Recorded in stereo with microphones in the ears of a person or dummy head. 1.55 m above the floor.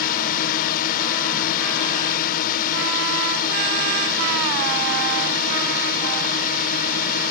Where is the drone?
50° left (ahead or behind).